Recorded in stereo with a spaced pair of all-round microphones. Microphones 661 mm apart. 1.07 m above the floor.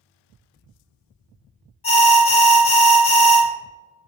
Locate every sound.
1.8 s an alarm: 55° left (ahead or behind), 0.7 m